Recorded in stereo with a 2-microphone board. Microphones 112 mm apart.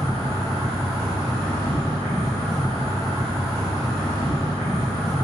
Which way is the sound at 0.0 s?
Centre (ahead or behind).